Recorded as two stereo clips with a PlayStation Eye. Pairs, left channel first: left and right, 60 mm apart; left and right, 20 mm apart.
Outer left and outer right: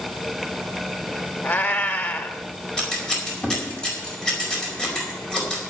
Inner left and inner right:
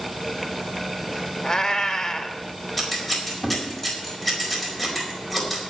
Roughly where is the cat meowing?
Left.